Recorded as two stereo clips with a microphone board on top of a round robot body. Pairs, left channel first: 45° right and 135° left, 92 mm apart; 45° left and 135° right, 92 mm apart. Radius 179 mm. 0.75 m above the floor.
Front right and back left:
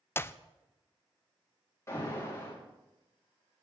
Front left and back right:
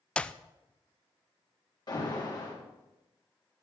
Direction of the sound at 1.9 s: 10° left.